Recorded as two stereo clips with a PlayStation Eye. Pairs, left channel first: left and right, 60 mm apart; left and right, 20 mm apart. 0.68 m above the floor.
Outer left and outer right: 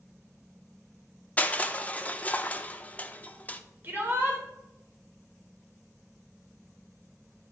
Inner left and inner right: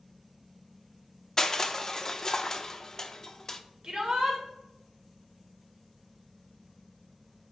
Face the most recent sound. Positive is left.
turn(degrees=-35)  # may be behind; listen again after turning